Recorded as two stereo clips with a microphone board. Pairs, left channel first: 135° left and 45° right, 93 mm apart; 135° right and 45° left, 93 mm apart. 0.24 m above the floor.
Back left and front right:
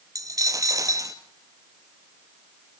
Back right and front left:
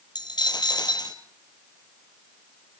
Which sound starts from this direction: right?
A dropped coin, at 0.1 s.